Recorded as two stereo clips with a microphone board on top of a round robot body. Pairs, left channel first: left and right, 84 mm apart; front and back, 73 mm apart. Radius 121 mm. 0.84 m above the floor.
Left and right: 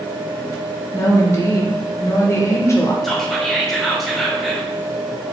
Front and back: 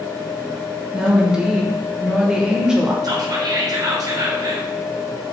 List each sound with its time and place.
0.9 s a woman speaking: 105° left, 0.9 m
3.0 s whispering: straight behind, 1.0 m